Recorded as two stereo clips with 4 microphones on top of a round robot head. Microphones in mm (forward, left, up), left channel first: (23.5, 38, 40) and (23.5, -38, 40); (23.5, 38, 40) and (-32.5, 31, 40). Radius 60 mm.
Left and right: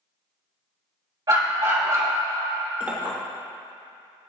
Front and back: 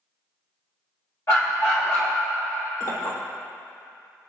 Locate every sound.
1.3 s a dog barking: 50° right, 3 m
2.8 s a clink: 20° right, 3 m